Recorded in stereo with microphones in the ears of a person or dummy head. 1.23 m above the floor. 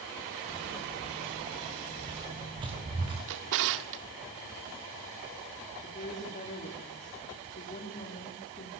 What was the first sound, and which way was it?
Footsteps, 35° right (ahead or behind).